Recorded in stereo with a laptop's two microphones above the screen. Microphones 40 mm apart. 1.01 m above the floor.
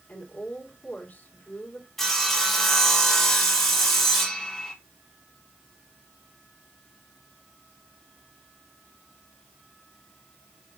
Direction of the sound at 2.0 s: 10° left (ahead or behind).